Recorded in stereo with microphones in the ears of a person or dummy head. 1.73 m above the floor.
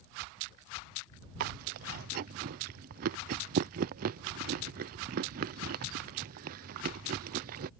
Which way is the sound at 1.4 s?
50° right (ahead or behind).